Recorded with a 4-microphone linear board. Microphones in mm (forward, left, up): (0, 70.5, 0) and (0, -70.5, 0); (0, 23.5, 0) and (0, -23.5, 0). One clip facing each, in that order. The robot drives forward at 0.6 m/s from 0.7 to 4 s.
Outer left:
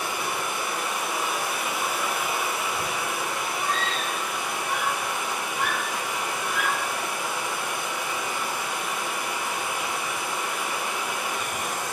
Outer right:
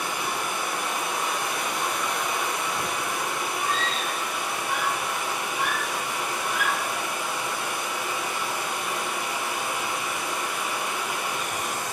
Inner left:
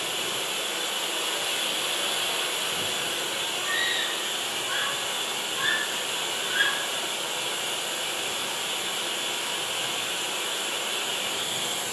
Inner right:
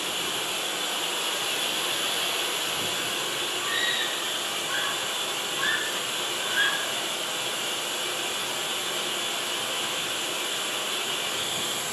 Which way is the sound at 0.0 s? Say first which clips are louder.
Even, even; centre (ahead or behind).